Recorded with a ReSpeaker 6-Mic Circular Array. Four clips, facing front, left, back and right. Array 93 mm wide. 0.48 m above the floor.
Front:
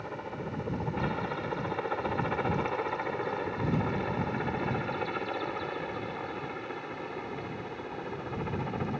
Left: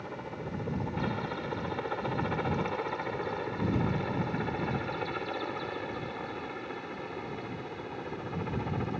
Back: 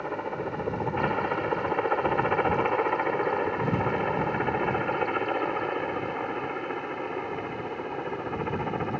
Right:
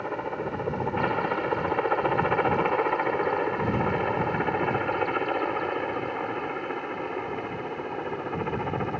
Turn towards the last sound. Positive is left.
turn(degrees=-125)